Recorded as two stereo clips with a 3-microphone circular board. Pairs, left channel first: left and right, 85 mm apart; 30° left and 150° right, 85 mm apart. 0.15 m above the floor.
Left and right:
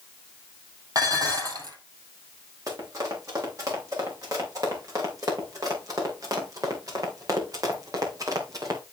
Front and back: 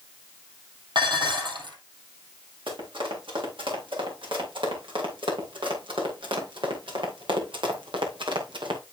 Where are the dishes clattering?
130° right, 3 m.